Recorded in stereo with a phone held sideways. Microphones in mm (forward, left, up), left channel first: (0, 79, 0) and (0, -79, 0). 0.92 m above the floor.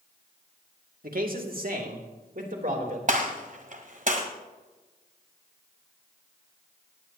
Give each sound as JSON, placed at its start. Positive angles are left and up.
{"t": 1.0, "sound": "a man speaking", "side_deg": -65, "distance_m": 2.0}
{"t": 3.1, "sound": "a gunshot", "side_deg": -55, "distance_m": 1.7}